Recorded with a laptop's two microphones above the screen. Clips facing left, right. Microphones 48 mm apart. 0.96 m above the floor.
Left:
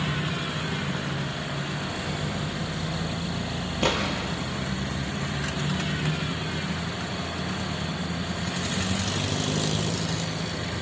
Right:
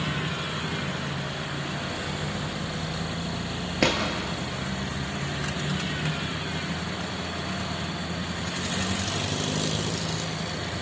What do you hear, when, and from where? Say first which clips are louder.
3.8 s a drawer: right 1 dB; 70° right (ahead or behind), 5 m